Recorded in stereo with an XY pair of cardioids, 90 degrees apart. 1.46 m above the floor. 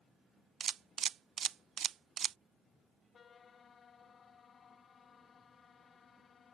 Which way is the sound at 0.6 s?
60° right.